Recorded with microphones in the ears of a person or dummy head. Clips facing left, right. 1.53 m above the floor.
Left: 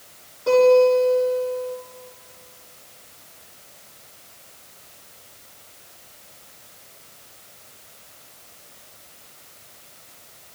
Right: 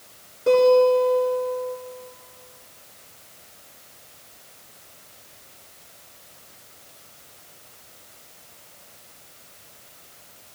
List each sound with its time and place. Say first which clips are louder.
0.5 s a guitar: left 1 dB; 30° right (ahead or behind), 7 m